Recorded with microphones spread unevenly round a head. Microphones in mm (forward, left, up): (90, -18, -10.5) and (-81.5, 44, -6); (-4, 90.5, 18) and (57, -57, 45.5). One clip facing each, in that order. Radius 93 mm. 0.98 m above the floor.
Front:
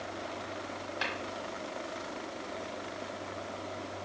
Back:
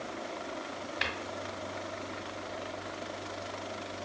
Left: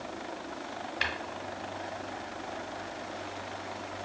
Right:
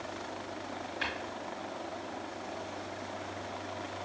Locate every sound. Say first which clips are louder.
1.0 s tapping: front 1 dB, left 2 dB; 100° left, 1.1 m